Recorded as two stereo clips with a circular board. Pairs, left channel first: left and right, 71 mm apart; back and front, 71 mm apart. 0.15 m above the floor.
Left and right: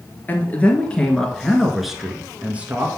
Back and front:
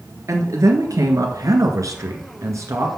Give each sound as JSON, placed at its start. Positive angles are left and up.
{"t": 0.3, "sound": "a man speaking", "azimuth_deg": 30, "distance_m": 2.0}